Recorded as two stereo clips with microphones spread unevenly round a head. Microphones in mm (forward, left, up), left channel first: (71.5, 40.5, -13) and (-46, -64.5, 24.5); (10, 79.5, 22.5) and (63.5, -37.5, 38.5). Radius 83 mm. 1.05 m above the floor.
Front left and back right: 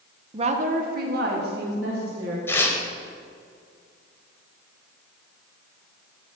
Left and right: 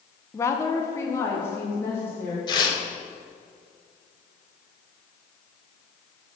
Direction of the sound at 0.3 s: 160° left.